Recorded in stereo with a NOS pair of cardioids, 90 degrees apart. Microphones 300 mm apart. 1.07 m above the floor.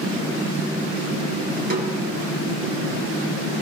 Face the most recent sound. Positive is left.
turn(degrees=-30)